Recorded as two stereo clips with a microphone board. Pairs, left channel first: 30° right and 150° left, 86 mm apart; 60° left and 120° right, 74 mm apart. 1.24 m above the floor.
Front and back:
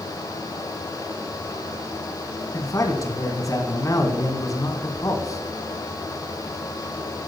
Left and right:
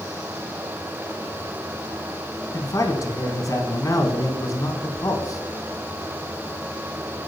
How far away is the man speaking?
About 4 m.